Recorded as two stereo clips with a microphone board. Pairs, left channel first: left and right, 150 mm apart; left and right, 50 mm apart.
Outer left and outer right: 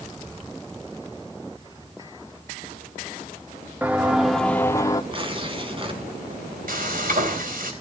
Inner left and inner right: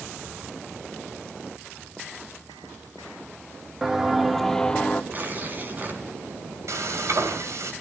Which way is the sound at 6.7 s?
65° right (ahead or behind).